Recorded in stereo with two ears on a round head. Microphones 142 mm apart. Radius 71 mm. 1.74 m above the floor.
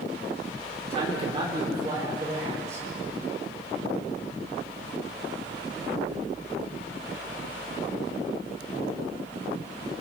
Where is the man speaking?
35° right (ahead or behind), 4.5 m; by 2.9 s 20° right (ahead or behind), 6 m.